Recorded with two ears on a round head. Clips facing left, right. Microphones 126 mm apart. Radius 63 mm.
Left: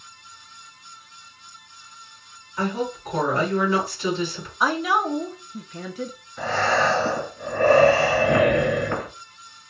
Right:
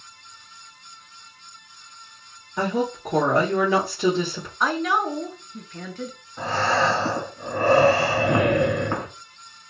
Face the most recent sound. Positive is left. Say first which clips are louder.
# even
turn(degrees=-30)  # may be behind; listen again after turning